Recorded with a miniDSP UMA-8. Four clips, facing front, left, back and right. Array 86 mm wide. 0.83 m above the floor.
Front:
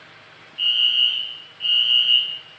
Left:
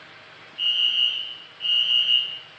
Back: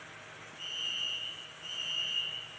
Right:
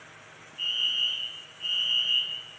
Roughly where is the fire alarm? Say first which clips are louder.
Left 6 dB, front 19 dB; ahead left.